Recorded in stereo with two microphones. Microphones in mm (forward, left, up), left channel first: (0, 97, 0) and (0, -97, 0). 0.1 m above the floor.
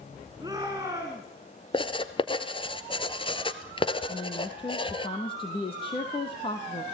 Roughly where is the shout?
Centre.